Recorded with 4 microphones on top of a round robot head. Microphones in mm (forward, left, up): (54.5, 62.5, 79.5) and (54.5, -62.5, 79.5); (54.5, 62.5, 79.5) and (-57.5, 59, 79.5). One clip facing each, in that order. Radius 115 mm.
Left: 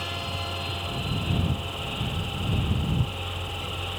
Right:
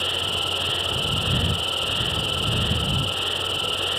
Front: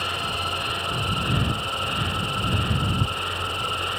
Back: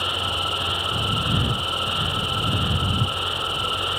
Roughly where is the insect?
Right.